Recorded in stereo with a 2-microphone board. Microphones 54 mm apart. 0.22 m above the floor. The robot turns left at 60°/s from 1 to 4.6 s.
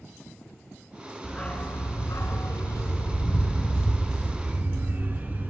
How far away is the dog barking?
About 1.1 m.